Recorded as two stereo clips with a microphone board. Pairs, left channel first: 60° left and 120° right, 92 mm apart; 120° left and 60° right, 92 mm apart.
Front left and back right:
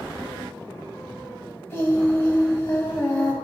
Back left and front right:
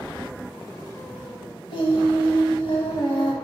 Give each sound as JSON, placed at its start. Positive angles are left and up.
{"t": 1.7, "sound": "singing", "azimuth_deg": 120, "distance_m": 0.7}